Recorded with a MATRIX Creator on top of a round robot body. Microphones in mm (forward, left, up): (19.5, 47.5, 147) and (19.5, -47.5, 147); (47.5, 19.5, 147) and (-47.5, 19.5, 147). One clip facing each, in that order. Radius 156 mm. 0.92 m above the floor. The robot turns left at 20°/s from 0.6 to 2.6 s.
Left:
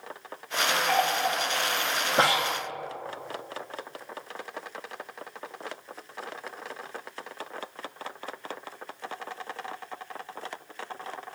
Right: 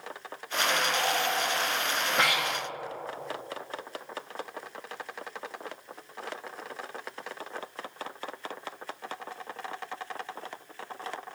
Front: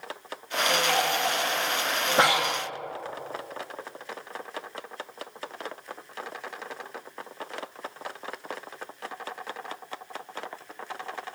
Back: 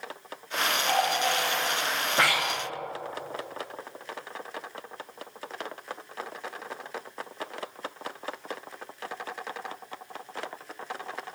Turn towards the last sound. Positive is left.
turn(degrees=45)